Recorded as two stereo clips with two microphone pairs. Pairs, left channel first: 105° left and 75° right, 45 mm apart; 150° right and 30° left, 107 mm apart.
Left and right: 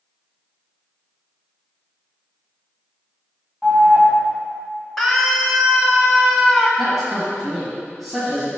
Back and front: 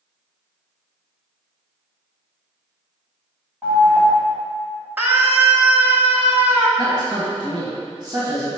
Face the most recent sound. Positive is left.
turn(degrees=10)